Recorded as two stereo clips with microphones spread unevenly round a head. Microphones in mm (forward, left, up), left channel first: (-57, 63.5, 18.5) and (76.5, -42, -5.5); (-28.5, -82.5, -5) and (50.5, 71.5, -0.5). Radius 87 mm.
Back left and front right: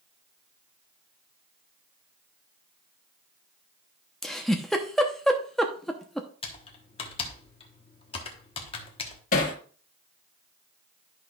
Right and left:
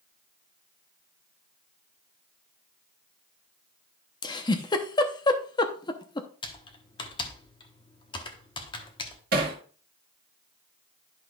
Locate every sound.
4.2 s a giggle: 150° right, 0.7 m
6.4 s typing on a keyboard: 175° right, 1.1 m
9.3 s hammering: 100° left, 1.6 m